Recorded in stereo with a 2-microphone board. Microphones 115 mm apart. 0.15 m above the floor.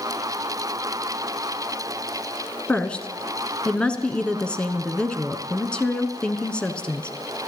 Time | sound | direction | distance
2.7 | a woman speaking | 10° left (ahead or behind) | 1.3 m